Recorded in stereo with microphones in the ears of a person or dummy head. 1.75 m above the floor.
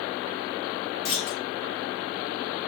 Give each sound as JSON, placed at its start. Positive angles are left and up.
{"t": 1.1, "sound": "a clunk", "side_deg": 30, "distance_m": 0.7}